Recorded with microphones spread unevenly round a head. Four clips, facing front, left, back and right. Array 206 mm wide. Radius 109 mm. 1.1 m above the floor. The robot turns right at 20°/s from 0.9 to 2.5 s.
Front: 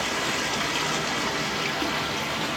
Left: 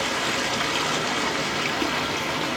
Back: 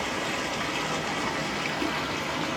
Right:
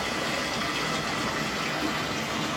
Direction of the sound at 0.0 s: 60° left.